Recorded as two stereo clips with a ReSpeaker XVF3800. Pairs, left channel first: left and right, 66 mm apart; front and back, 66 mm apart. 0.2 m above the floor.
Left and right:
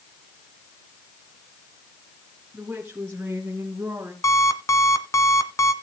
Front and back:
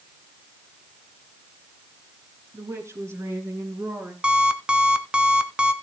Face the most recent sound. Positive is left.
turn(degrees=105)